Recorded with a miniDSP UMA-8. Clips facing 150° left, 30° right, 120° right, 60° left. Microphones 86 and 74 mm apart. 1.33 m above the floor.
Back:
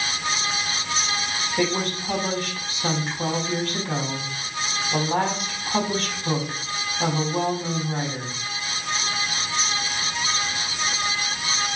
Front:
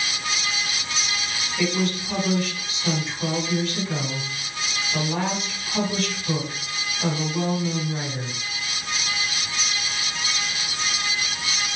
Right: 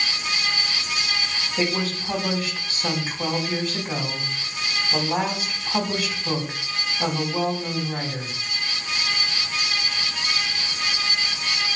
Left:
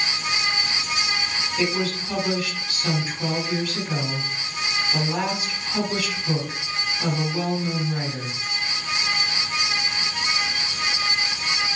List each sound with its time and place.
1.6 s a woman speaking: straight behind, 5.5 m